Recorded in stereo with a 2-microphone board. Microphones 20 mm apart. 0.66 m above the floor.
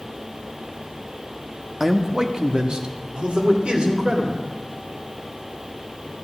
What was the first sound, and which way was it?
A man speaking, 5° right (ahead or behind).